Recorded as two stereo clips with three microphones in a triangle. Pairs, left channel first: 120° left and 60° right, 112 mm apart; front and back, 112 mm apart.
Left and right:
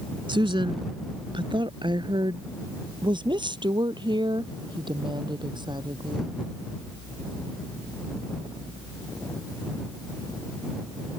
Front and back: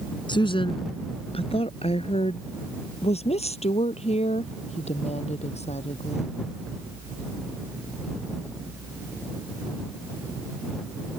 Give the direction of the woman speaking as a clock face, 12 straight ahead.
1 o'clock.